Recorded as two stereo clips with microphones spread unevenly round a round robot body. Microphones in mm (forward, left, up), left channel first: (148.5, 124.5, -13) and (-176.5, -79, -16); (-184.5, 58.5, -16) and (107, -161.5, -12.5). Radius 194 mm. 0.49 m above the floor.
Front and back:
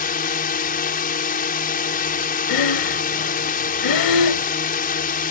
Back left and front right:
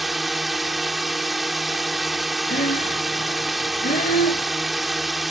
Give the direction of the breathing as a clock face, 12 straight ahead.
10 o'clock.